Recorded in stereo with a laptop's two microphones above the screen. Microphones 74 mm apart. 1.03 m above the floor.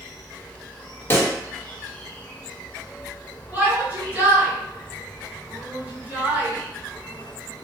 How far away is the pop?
About 0.6 m.